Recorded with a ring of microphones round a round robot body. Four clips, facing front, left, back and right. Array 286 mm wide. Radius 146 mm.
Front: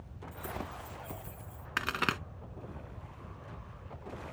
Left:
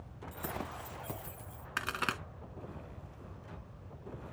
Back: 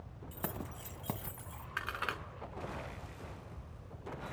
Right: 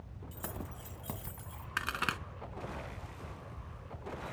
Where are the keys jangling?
170° left, 2.0 m; by 1.7 s 165° right, 2.5 m.